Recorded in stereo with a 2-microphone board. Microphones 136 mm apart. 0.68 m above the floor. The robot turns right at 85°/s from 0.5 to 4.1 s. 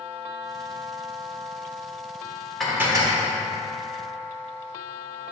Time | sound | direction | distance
2.6 | dishes clattering | straight behind | 1.3 m